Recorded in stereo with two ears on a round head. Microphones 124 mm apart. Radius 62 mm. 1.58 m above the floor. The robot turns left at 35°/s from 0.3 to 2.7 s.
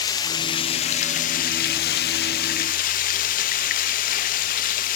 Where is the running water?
150° left, 0.9 m; by 5.0 s 65° left, 0.9 m.